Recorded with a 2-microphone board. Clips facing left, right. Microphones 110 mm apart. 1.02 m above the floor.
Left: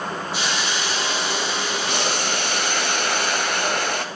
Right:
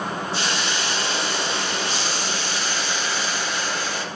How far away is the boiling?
About 1.3 m.